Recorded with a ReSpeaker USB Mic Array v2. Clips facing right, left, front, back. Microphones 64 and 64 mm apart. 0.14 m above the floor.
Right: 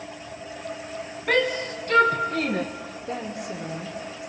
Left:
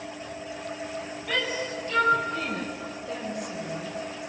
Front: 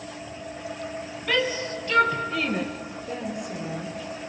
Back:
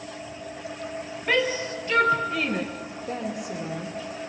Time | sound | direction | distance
1.3 | a shout | 120° right | 2.5 m
3.1 | a woman speaking | 140° right | 3.5 m